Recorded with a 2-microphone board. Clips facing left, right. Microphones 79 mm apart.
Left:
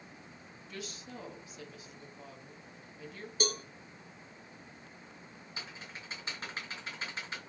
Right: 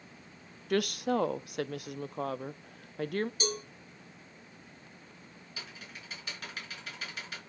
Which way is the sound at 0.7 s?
70° right (ahead or behind).